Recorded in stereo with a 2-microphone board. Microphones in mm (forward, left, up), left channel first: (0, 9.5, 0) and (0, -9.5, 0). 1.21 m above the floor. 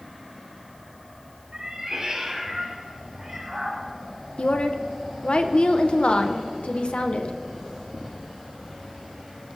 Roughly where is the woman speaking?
Left.